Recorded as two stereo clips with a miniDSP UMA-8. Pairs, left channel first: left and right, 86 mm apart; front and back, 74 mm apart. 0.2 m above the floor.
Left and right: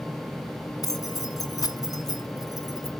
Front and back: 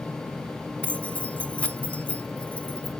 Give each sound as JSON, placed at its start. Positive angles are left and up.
{"t": 0.8, "sound": "keys jangling", "azimuth_deg": 65, "distance_m": 1.3}